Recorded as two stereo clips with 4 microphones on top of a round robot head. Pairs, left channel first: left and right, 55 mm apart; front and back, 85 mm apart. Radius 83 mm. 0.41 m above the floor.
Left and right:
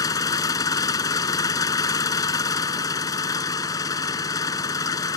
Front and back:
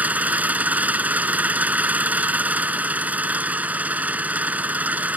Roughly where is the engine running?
Left.